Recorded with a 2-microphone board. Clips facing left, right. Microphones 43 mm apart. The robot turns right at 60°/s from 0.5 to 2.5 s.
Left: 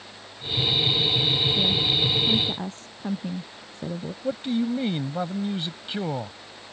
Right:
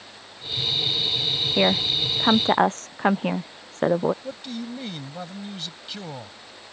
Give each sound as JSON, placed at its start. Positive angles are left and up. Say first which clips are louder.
{"t": 1.6, "sound": "a woman speaking", "louder": "right 2 dB", "azimuth_deg": -120}
{"t": 4.2, "sound": "a man speaking", "louder": "left 8 dB", "side_deg": 25}